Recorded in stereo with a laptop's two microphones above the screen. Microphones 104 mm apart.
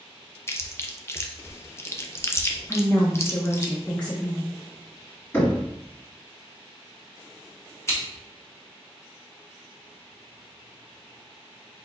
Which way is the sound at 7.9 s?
25° left (ahead or behind).